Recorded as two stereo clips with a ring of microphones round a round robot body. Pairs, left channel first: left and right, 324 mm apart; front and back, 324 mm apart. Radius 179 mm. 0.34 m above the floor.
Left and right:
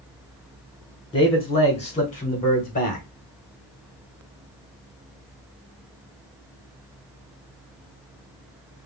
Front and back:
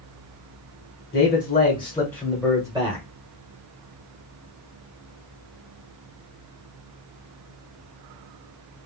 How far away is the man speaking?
About 1.2 m.